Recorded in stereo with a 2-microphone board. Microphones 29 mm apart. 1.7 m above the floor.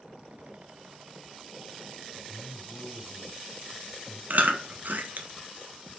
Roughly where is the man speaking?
Left.